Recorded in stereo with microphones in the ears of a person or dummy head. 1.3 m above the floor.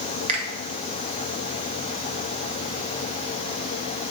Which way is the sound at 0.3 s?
30° right (ahead or behind).